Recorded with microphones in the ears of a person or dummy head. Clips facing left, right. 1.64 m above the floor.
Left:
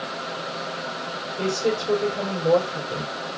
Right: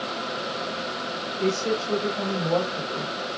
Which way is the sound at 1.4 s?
50° left (ahead or behind).